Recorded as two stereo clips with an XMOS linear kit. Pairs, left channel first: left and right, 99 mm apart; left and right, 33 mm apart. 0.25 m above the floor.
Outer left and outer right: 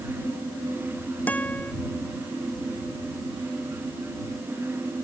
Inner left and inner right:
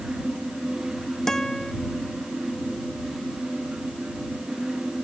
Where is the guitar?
15° left (ahead or behind).